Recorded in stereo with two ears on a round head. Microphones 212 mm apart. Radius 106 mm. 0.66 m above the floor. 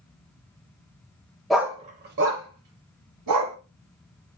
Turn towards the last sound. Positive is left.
turn(degrees=-80)